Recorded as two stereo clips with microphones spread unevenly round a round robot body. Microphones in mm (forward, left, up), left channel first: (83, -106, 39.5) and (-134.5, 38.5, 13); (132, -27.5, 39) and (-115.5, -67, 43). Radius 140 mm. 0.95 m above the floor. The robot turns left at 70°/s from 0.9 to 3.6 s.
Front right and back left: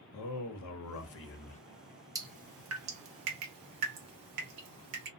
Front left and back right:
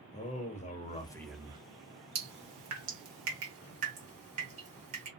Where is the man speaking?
55° right, 0.6 m; by 1.6 s 100° right, 0.6 m.